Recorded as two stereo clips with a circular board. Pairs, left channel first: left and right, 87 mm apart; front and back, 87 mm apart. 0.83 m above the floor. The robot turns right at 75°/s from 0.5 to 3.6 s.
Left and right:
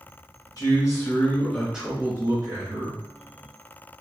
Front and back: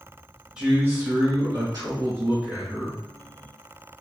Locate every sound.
0.6 s a man speaking: 105° left, 1.3 m; by 3.0 s 75° right, 1.3 m